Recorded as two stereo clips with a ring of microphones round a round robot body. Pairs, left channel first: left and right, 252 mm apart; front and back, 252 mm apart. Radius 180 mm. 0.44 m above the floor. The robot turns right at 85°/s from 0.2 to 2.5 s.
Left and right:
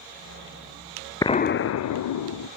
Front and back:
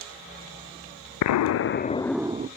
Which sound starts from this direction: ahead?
An explosion, at 1.2 s.